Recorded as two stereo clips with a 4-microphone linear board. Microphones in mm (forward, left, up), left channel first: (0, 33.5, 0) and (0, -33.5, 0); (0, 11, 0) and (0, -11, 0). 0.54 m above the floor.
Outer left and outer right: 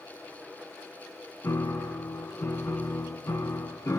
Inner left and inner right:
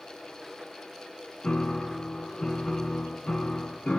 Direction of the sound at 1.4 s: 45° left (ahead or behind).